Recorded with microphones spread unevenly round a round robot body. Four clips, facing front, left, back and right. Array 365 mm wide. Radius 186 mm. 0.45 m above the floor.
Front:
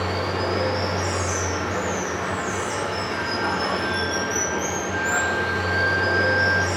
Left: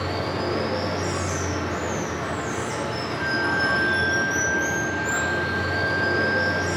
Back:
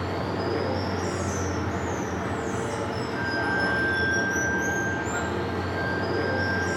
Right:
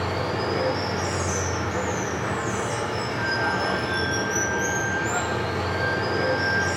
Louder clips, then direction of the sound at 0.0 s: Even, front 3 dB; 145° left.